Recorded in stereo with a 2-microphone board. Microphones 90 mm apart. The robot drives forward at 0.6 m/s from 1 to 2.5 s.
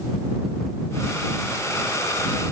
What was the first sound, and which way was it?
Only background noise.